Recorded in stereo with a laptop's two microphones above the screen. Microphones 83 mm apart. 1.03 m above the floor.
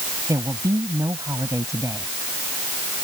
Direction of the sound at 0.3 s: 40° right (ahead or behind).